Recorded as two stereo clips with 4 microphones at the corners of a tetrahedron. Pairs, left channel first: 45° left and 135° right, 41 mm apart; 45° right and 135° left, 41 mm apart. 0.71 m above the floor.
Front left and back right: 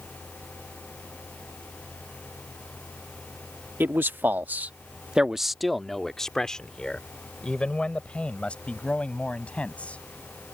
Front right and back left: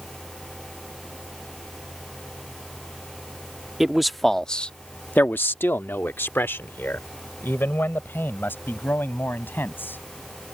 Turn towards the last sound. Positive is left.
turn(degrees=-10)